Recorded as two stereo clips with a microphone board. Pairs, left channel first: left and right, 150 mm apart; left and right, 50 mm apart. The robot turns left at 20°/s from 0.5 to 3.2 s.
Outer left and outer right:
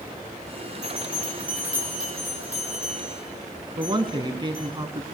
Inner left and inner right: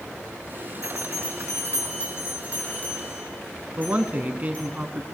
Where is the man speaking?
35° right (ahead or behind), 1.2 m.